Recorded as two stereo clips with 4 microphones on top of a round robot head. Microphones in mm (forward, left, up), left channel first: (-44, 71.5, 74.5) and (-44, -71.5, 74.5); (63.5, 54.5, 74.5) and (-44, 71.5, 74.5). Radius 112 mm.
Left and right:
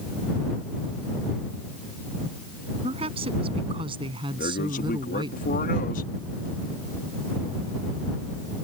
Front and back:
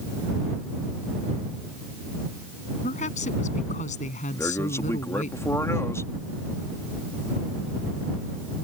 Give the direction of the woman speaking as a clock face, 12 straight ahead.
1 o'clock.